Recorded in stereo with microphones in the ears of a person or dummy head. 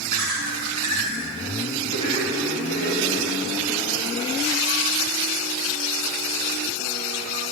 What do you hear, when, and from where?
0.1 s laughter: 20° left (ahead or behind), 2.5 m; by 3.3 s 55° left (ahead or behind), 3 m